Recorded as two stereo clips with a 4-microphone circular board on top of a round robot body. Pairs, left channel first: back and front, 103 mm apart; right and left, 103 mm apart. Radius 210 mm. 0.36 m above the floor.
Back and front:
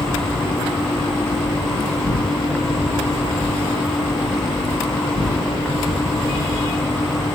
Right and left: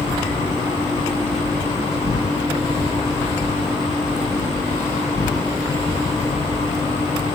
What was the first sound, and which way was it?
An insect, 95° right.